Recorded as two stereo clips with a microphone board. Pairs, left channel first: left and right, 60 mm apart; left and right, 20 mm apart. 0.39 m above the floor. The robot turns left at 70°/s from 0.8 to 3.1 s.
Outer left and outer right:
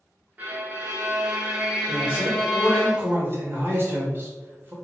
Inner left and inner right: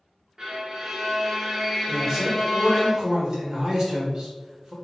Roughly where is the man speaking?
Ahead.